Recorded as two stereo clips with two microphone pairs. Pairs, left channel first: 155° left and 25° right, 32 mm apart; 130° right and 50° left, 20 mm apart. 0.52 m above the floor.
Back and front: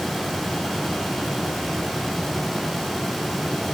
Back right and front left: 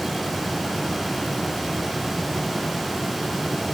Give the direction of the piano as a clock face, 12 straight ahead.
No piano in this recording.